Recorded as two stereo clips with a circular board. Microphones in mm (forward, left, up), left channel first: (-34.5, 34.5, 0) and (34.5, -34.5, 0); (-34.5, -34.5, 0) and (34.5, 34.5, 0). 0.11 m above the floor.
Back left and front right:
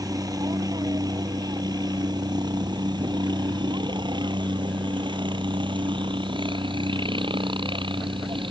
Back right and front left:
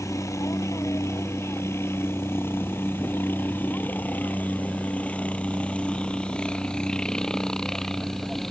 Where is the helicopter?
85° right; by 8.5 s 50° right.